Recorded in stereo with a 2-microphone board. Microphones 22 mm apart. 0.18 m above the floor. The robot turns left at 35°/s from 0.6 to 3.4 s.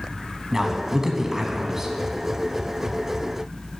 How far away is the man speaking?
About 1.1 m.